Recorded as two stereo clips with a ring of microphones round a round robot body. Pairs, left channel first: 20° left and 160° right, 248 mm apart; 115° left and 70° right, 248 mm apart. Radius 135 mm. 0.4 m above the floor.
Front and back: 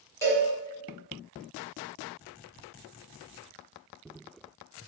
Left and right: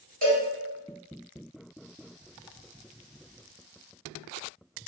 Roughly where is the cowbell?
Ahead right.